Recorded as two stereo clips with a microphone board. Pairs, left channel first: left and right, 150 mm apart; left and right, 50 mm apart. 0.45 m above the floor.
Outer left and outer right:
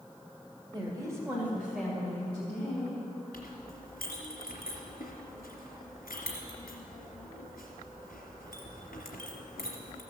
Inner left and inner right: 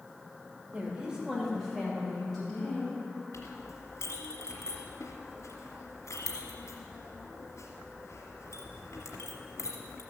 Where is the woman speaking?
30° right (ahead or behind), 1.8 m; by 3.0 s 15° left (ahead or behind), 3.5 m.